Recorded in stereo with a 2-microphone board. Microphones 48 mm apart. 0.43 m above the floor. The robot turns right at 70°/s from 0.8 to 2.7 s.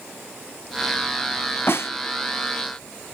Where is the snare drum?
55° left (ahead or behind), 0.7 m; by 1.9 s 70° left (ahead or behind), 0.7 m.